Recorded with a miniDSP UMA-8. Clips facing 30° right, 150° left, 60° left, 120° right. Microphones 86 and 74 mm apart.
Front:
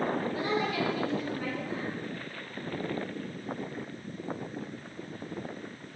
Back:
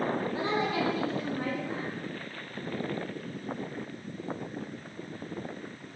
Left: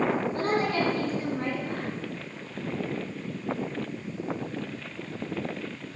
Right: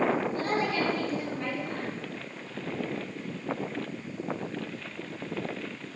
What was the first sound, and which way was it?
A woman speaking, 90° left.